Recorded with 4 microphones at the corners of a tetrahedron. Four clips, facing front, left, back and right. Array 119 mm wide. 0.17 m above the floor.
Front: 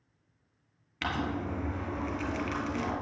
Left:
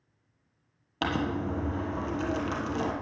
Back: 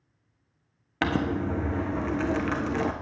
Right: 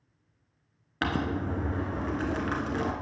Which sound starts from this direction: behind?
Crumpling, at 1.0 s.